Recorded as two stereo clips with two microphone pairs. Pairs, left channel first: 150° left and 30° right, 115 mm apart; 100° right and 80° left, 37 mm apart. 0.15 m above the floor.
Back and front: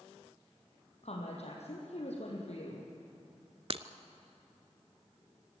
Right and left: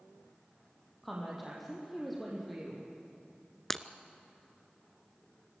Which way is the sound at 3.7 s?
20° right.